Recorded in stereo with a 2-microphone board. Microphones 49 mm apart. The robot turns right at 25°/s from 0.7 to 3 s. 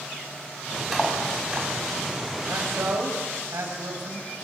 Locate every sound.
0.9 s cutlery clinking: 5° right (ahead or behind), 5 m; by 1.7 s 25° right (ahead or behind), 5 m
2.5 s a man speaking: 60° right (ahead or behind), 8 m; by 4.3 s 75° right (ahead or behind), 8 m